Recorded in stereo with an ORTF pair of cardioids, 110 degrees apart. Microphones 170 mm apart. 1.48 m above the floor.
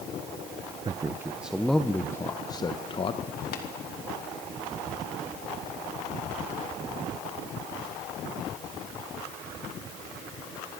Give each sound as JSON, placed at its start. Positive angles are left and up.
{"t": 0.8, "sound": "a man speaking", "azimuth_deg": -25, "distance_m": 0.9}
{"t": 3.5, "sound": "tapping", "azimuth_deg": 65, "distance_m": 3.5}